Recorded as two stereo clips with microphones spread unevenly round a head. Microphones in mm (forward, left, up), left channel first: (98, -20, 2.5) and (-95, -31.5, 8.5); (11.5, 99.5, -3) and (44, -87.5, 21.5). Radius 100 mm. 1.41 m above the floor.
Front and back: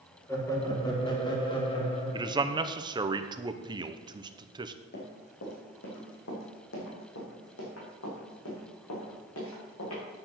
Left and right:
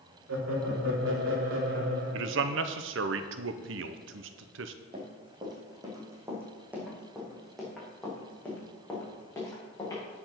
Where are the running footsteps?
25° right, 3.5 m; by 10.2 s 25° left, 6 m.